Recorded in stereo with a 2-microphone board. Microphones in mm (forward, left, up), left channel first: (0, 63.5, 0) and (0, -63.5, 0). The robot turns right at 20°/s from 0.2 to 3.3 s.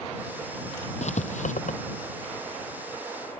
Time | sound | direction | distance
1.0 | writing | 65° left (ahead or behind) | ?